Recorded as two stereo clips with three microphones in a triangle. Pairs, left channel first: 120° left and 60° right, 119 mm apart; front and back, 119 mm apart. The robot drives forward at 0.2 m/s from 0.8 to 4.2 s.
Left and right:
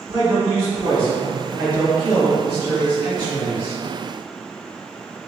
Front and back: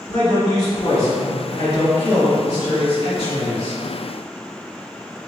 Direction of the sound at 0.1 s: 30° right.